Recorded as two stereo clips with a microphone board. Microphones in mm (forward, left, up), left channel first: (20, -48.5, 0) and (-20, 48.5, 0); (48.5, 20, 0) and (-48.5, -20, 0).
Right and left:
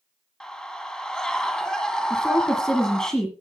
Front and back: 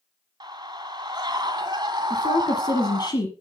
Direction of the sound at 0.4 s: 145° right.